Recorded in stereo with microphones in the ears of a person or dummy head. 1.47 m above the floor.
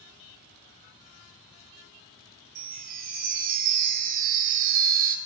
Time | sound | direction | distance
2.5 | a chime | 45° right (ahead or behind) | 0.6 m